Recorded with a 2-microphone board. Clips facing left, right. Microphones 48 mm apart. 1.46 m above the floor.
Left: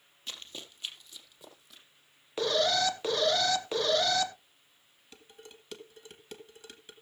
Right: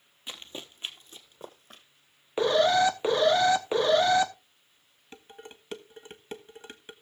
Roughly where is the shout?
No shout in this recording.